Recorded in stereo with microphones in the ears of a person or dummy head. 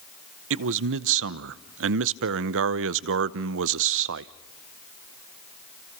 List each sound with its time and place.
0.5 s a man speaking: 70° right (ahead or behind), 0.7 m